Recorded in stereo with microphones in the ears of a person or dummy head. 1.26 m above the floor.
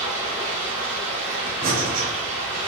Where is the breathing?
40° right (ahead or behind), 0.6 m.